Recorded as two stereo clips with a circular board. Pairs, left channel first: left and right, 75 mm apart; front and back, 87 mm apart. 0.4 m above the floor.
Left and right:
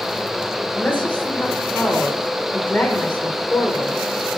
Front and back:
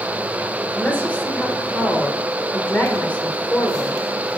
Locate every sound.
0.7 s a woman speaking: 45° left, 1.0 m